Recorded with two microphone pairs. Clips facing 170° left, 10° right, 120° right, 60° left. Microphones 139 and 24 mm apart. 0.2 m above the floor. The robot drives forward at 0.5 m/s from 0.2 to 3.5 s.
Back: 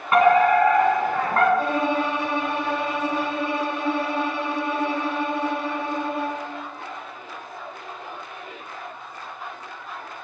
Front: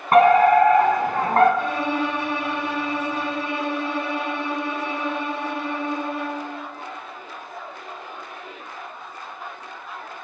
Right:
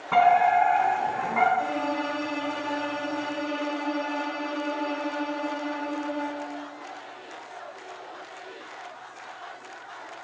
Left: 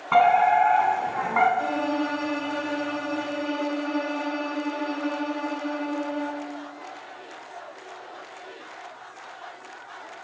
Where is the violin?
125° left, 4.5 m; by 6.4 s 135° left, 5 m.